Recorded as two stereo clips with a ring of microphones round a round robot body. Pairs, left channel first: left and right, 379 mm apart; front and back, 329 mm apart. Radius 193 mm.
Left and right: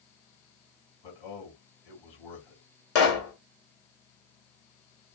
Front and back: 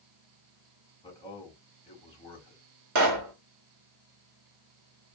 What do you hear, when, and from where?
1.0 s a man speaking: 75° left, 3.5 m
3.0 s a pop: 145° left, 1.4 m